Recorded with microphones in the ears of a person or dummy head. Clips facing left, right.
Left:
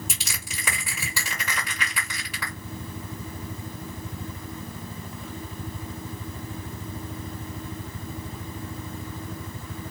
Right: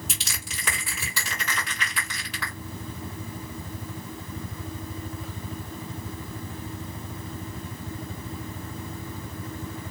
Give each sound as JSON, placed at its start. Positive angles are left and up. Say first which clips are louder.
{"t": 0.1, "sound": "crushing", "louder": "even", "side_deg": 5, "distance_m": 2.0}